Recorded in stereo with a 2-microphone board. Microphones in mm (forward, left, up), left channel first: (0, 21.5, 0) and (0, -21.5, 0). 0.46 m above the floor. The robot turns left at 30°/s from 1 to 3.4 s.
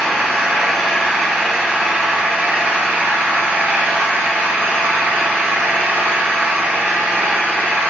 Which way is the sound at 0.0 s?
10° left.